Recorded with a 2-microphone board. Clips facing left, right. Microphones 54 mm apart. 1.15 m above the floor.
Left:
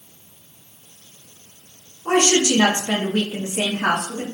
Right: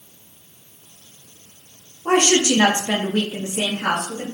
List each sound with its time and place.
2.0 s a woman speaking: 45° right (ahead or behind), 1.0 m; by 4.2 s 55° left (ahead or behind), 1.0 m